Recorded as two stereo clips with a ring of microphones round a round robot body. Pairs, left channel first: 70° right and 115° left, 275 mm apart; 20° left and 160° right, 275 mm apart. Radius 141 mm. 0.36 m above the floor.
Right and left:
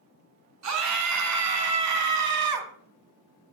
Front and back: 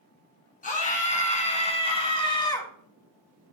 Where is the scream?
85° left, 4.5 m; by 2.7 s 100° left, 3 m.